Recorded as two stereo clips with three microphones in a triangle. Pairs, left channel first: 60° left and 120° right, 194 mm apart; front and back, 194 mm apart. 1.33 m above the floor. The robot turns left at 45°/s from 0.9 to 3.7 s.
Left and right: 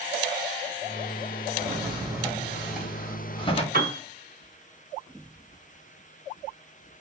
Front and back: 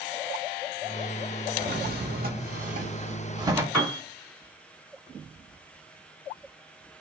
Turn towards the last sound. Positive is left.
turn(degrees=-110)